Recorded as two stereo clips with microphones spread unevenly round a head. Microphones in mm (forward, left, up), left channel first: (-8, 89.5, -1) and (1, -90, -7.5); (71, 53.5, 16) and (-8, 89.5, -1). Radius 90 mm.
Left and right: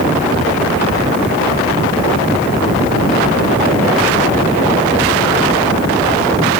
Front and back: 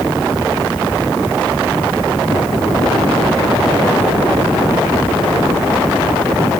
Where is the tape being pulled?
No tape being pulled in this recording.